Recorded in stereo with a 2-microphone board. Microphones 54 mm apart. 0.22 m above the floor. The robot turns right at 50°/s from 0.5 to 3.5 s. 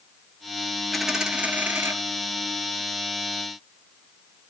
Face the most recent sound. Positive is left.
turn(degrees=-50)